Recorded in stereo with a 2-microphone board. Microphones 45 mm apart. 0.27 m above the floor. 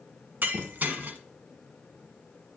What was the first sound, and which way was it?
Breaking glass, 40° right (ahead or behind).